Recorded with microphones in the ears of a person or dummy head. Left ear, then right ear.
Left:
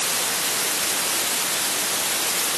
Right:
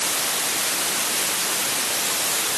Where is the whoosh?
No whoosh in this recording.